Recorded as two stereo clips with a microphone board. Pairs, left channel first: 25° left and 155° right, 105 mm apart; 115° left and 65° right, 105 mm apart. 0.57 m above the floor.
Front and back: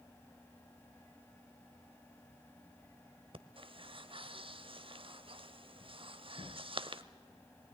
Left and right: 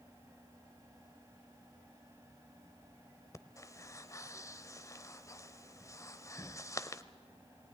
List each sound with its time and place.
3.3 s breathing: 170° left, 0.6 m